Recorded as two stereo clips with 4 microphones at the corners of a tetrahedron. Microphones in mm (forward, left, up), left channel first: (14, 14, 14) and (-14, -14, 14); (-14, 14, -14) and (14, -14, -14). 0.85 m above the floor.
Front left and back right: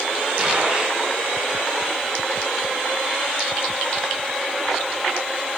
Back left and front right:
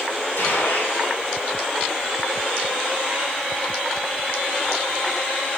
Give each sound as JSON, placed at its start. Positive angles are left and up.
{"t": 0.4, "sound": "a gunshot", "azimuth_deg": 160, "distance_m": 6.0}